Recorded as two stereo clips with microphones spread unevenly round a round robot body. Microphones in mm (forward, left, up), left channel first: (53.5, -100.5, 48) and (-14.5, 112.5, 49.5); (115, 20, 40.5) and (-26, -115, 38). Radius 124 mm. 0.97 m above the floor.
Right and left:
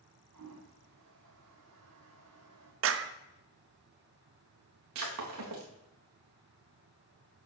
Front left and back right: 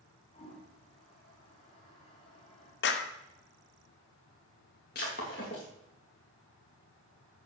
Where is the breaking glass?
95° left, 3.5 m.